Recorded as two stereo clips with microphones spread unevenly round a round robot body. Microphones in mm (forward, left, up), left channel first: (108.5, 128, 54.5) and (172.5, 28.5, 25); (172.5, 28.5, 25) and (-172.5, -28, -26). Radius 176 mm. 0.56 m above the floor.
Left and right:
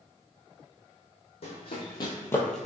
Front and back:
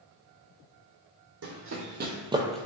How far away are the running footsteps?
About 1.1 m.